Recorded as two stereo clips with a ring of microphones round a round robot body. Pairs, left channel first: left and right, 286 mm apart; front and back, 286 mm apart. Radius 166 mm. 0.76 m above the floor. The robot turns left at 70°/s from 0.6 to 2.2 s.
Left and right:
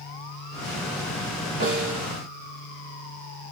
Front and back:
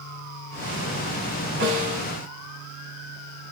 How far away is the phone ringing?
No phone ringing in this recording.